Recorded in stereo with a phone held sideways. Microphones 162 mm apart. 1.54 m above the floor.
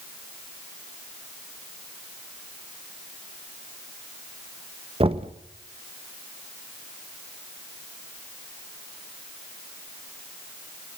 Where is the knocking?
35° right (ahead or behind), 0.9 m.